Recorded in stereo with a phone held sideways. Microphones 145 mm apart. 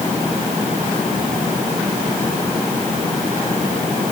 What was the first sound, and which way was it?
Only background noise.